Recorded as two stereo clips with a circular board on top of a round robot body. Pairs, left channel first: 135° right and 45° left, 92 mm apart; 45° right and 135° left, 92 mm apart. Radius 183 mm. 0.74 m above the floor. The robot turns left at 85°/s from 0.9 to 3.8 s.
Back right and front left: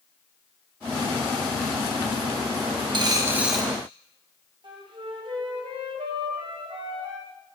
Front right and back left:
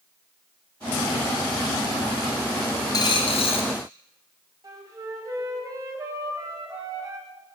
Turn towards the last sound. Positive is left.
turn(degrees=80)